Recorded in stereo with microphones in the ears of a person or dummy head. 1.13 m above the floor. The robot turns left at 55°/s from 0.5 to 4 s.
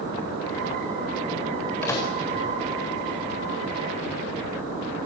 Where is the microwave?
10° left (ahead or behind), 4.5 m; by 2.1 s 25° left (ahead or behind), 4.5 m.